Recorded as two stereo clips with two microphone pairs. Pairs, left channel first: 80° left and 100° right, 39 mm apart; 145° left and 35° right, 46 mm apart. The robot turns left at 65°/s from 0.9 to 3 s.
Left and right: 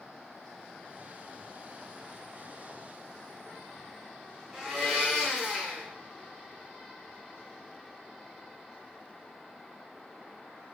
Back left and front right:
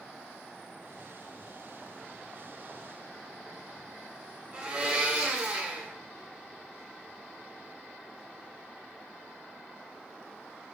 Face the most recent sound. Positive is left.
turn(degrees=-40)